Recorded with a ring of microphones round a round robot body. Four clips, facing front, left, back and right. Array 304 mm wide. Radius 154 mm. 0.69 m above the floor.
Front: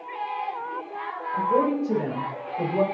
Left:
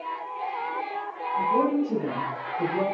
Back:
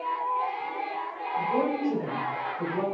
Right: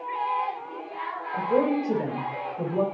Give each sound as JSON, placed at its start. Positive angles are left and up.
{"t": 1.3, "sound": "a woman speaking", "azimuth_deg": -55, "distance_m": 4.0}